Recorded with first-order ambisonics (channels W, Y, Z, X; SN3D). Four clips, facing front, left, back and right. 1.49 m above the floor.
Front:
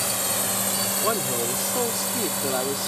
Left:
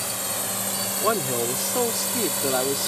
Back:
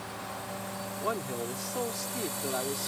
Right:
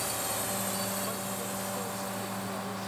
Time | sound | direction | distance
0.0 | a drone | 20° left | ?
1.0 | a man speaking | 70° left | ?